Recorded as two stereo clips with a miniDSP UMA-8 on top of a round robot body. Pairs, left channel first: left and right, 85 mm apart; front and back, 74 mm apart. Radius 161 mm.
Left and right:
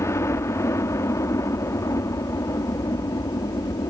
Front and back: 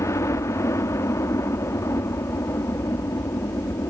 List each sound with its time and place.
0.0 s a helicopter: 40° left; by 3.9 s 50° left